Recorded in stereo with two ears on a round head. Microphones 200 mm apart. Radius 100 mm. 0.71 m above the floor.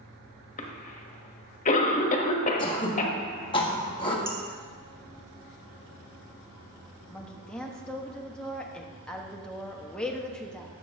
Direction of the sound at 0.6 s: 35° left (ahead or behind).